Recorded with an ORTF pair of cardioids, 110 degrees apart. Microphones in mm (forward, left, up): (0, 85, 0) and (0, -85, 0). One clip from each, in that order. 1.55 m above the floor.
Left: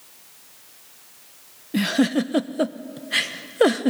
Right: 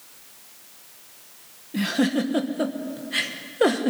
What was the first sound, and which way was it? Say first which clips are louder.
A giggle: left 2 dB; 40° left.